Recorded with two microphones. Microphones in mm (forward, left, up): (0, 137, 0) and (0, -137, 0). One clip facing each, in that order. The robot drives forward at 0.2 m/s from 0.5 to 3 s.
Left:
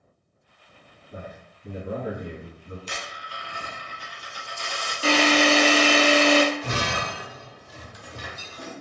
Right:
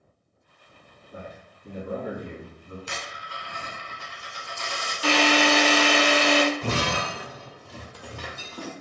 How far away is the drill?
About 0.6 m.